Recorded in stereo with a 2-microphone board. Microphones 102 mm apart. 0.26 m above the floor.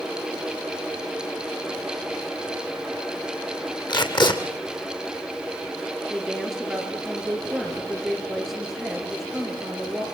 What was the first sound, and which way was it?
Tape being pulled, 45° left (ahead or behind).